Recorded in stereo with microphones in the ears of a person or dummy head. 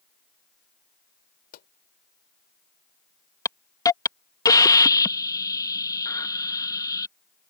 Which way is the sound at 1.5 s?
50° left (ahead or behind).